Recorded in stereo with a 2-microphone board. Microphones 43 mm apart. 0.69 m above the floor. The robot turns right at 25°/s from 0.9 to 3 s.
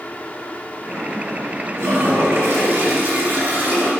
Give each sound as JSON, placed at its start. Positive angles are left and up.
{"t": 1.8, "sound": "a toilet flushing", "azimuth_deg": -85, "distance_m": 2.5}